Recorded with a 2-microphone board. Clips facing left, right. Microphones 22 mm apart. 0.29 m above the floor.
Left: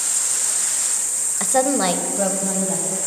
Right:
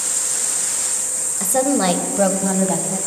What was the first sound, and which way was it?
A woman speaking, 25° left (ahead or behind).